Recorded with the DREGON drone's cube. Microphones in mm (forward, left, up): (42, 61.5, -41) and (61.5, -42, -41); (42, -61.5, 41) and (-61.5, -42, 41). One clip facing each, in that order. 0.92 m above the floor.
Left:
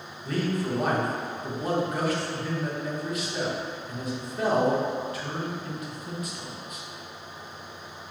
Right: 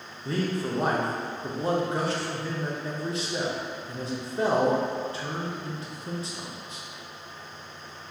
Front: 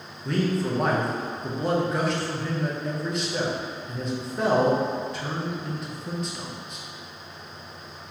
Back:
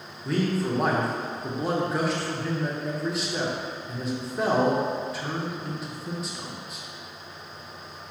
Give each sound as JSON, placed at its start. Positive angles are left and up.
{"t": 0.2, "sound": "a man speaking", "azimuth_deg": -105, "distance_m": 0.6}